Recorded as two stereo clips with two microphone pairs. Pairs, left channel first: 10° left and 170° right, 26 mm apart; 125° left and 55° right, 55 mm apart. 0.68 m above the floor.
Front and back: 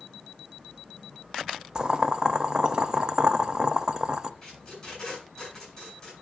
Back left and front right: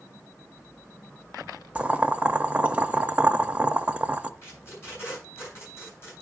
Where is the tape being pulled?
80° left, 7.5 m.